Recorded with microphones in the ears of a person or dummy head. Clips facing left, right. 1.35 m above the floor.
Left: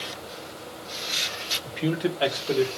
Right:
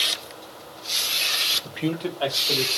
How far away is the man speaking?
About 0.6 m.